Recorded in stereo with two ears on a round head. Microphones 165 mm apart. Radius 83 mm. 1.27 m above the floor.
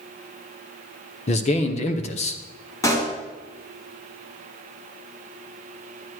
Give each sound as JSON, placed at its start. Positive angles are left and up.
{"t": 1.3, "sound": "a man speaking", "side_deg": 40, "distance_m": 0.8}
{"t": 2.8, "sound": "a pop", "side_deg": 20, "distance_m": 1.9}